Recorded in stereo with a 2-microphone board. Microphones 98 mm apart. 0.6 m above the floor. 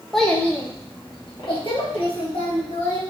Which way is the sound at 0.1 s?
Centre (ahead or behind).